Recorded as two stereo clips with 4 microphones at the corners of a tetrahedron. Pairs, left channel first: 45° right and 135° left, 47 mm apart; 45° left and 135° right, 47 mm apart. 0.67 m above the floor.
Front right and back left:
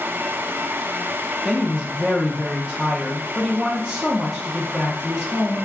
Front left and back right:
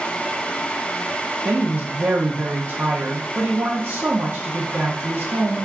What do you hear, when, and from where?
1.4 s a woman speaking: 145° right, 0.6 m